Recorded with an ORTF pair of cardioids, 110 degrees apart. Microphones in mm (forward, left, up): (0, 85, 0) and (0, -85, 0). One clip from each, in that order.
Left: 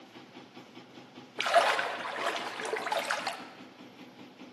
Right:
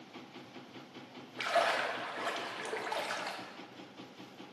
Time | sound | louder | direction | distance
1.4 | a splash | left 5 dB | 30° left | 0.6 m